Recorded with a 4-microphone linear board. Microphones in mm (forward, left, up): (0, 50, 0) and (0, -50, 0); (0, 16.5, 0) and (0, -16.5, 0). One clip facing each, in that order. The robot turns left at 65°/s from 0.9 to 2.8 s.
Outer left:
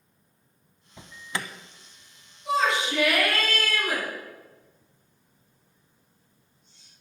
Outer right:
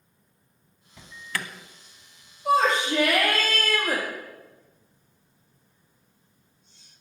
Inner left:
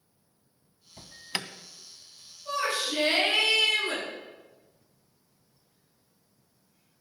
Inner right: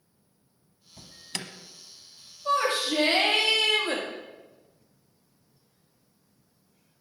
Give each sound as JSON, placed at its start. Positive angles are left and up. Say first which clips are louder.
{"t": 1.0, "sound": "an alarm", "louder": "even, inner left 3 dB", "side_deg": 20, "distance_m": 0.7}
{"t": 2.5, "sound": "a shout", "louder": "outer right 3 dB, inner right 4 dB", "side_deg": -60, "distance_m": 6.0}